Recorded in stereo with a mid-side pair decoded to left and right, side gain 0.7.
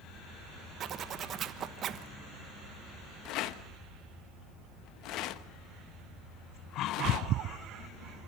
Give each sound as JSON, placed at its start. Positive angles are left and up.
{"t": 0.8, "sound": "a zipper", "azimuth_deg": -40, "distance_m": 1.3}
{"t": 3.2, "sound": "a rattle", "azimuth_deg": 60, "distance_m": 0.9}